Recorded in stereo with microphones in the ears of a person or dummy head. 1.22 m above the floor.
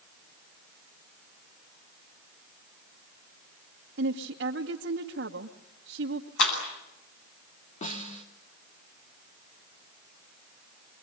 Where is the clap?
75° left (ahead or behind), 8.5 m.